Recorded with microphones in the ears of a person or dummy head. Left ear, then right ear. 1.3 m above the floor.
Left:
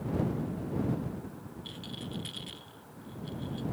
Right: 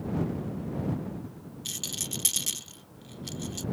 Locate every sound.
1.6 s a rattle: 85° right